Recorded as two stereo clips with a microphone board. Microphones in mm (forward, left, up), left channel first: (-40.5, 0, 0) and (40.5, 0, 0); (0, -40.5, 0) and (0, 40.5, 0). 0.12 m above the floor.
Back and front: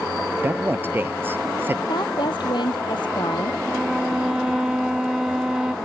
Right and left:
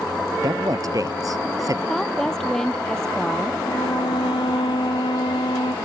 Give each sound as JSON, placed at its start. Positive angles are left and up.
{"t": 0.4, "sound": "a man speaking", "azimuth_deg": 60}
{"t": 1.9, "sound": "a woman speaking", "azimuth_deg": -175}
{"t": 3.6, "sound": "a violin", "azimuth_deg": -80}